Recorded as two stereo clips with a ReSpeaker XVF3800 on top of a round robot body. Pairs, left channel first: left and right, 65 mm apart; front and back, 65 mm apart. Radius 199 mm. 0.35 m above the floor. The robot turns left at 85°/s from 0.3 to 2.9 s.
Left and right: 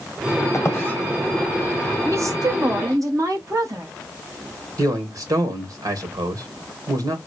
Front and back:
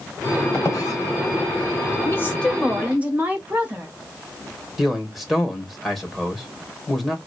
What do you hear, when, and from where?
0.5 s a squeak: 55° left, 2 m; by 1.0 s 15° left, 2 m
2.0 s a woman speaking: 40° right, 2.5 m; by 3.9 s 115° right, 2.5 m
4.8 s a man speaking: 95° right, 2.5 m